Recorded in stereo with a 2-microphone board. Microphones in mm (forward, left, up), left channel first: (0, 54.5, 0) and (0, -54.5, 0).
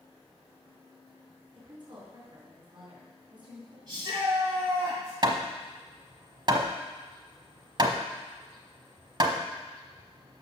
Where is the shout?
45° right (ahead or behind), 2.5 m.